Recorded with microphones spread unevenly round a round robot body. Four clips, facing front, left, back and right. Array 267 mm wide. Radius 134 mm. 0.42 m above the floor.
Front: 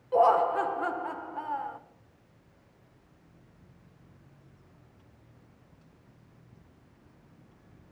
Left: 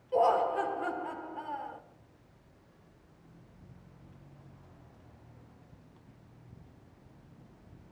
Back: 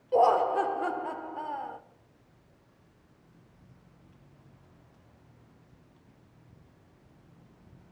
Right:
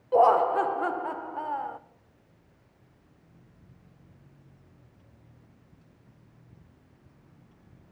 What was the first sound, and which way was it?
Laughter, 120° right.